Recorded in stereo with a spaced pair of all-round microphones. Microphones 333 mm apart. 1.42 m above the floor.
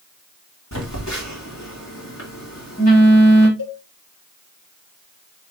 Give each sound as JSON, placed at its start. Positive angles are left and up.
{"t": 0.7, "sound": "a phone buzzing", "side_deg": 50, "distance_m": 2.5}
{"t": 3.6, "sound": "a cowbell", "side_deg": 70, "distance_m": 2.5}